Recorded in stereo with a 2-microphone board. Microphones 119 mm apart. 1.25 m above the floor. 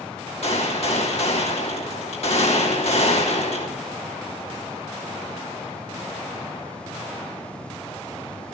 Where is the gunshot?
60° left (ahead or behind), 3 m.